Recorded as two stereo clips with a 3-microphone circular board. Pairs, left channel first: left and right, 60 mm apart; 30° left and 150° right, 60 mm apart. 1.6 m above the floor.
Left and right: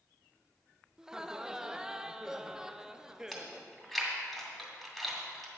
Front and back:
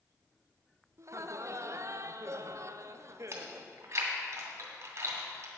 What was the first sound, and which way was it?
Laughter, 170° right.